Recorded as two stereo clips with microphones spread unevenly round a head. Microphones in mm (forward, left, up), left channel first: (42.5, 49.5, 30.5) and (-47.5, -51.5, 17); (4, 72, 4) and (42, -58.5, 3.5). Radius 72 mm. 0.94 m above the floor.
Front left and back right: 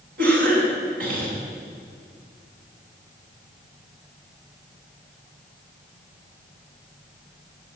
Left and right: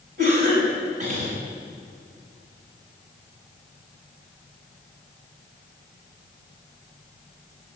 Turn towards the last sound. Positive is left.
turn(degrees=-120)